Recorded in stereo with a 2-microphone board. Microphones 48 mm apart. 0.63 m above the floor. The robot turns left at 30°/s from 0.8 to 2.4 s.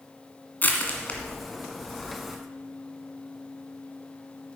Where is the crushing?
40° left (ahead or behind), 1.8 m; by 2.4 s 5° right (ahead or behind), 1.8 m.